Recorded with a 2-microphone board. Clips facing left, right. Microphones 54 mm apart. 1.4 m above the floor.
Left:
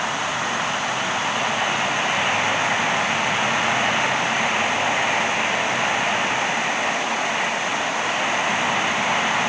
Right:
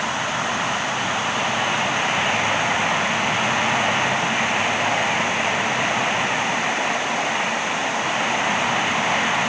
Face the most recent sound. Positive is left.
No sound to turn to.